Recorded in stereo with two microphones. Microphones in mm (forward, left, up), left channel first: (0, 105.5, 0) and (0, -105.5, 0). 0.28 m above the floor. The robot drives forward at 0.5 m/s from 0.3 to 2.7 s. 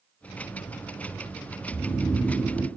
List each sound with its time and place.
1.7 s snoring: 5° left (ahead or behind), 0.5 m